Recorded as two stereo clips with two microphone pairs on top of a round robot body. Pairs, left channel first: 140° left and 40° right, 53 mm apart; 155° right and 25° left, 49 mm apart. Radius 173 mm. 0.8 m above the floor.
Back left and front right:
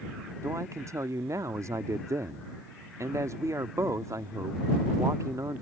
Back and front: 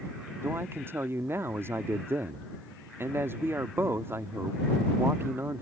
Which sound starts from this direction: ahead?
A man speaking, at 0.4 s.